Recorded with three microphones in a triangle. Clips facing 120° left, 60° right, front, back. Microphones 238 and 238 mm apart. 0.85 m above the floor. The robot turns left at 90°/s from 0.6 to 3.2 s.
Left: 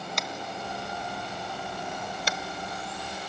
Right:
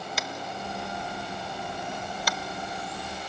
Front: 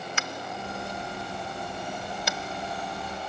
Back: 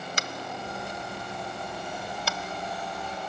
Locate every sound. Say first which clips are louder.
0.2 s tapping: even, even; 145° right, 0.6 m; by 2.4 s 55° left, 0.6 m